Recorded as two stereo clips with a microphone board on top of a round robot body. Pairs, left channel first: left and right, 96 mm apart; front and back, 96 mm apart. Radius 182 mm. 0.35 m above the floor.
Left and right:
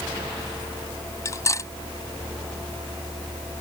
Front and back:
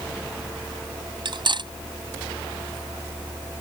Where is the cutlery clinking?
145° left.